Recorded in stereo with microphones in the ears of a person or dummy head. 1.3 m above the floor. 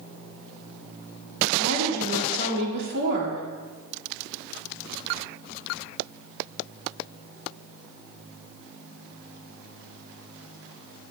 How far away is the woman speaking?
About 3.5 m.